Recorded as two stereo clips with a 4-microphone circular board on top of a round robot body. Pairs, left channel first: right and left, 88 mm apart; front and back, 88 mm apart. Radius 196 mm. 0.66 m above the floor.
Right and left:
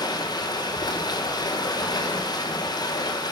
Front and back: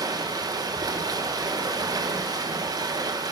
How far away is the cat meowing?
No cat meowing in this recording.